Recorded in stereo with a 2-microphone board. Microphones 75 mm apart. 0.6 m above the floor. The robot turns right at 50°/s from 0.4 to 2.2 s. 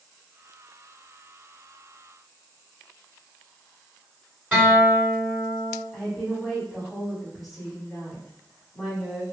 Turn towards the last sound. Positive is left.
turn(degrees=5)  # may be behind; listen again after turning